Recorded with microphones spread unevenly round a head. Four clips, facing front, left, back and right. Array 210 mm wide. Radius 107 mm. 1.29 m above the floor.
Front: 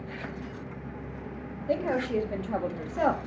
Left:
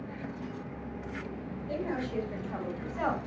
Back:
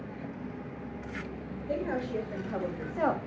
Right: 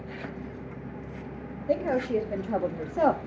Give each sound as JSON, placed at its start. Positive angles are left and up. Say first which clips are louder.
{"t": 1.7, "sound": "a woman speaking", "louder": "right 8 dB, front 5 dB", "azimuth_deg": -60, "distance_m": 3.0}